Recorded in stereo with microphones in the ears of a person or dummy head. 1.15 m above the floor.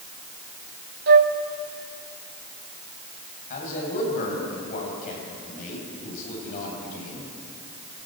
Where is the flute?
50° right (ahead or behind), 1.0 m.